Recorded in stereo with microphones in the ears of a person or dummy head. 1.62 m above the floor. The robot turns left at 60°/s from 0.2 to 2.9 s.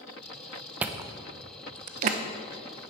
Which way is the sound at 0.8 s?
15° right (ahead or behind).